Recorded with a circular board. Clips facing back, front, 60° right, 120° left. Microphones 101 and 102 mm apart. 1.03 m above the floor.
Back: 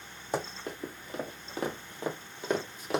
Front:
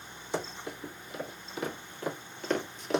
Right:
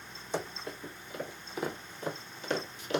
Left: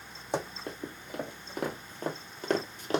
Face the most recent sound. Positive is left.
turn(degrees=90)